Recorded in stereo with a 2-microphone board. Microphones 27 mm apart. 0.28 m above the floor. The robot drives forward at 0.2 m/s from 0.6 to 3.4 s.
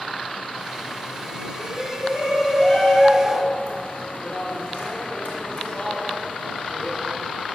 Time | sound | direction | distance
1.6 | a shout | 55° left (ahead or behind) | 3.5 m